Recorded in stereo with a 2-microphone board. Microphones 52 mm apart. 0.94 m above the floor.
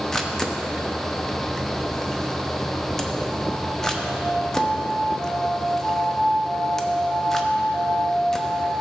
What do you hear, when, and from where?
0.1 s a camera shutter: 10° left (ahead or behind), 0.7 m